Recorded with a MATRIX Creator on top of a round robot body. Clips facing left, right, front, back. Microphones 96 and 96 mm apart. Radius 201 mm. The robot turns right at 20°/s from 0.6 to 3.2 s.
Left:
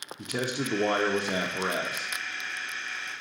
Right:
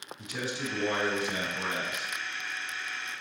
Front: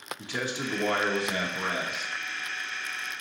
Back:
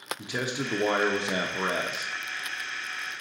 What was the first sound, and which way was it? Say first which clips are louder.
A man speaking: left 4 dB, back 1 dB; 105° left.